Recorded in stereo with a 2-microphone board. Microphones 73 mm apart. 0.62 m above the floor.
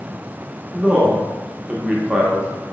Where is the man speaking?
15° right (ahead or behind), 0.6 m.